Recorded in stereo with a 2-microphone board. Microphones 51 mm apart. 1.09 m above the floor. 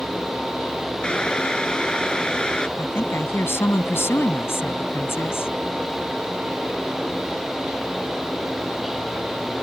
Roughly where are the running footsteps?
No running footsteps in this recording.